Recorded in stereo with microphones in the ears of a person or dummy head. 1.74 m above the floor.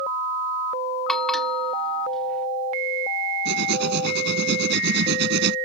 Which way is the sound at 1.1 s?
5° left (ahead or behind).